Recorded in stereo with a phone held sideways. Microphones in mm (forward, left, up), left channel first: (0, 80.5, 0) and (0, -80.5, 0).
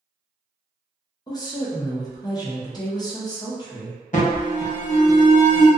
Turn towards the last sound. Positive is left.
turn(degrees=50)  # may be behind; listen again after turning